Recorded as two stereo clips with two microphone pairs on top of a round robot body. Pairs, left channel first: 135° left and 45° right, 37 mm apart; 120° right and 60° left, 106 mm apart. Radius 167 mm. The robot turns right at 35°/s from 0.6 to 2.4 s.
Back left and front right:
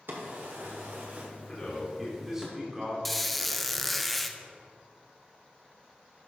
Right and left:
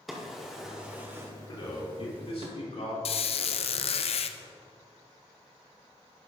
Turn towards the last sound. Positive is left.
turn(degrees=-135)